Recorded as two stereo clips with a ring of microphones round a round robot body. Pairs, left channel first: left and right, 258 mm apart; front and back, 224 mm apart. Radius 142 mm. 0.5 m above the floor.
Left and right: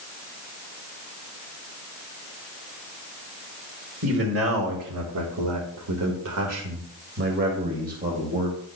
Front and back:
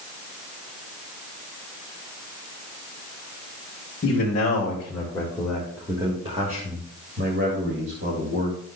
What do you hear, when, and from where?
4.0 s a man speaking: 55° right, 2.0 m; by 8.6 s 150° right, 2.5 m